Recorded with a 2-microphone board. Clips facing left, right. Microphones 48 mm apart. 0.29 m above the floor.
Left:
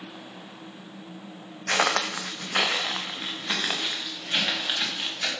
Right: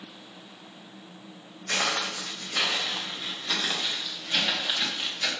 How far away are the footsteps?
About 0.9 m.